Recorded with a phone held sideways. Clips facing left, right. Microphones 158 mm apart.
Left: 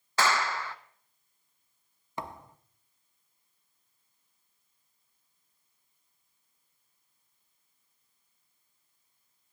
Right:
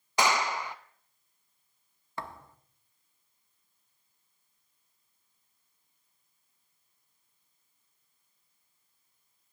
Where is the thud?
20° left (ahead or behind), 0.7 m.